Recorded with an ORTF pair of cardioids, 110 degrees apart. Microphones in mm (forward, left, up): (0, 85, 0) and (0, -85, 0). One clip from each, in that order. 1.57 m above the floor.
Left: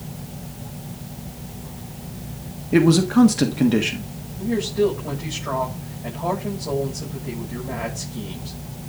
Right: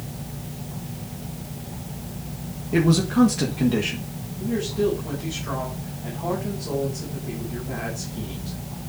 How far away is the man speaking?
About 1.5 m.